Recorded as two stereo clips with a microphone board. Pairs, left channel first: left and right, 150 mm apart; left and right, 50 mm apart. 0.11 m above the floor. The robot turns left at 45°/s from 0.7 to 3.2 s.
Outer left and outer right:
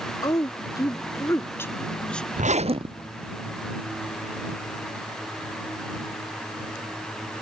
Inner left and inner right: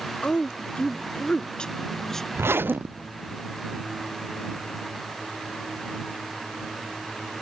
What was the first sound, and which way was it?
A woman speaking, 25° left (ahead or behind).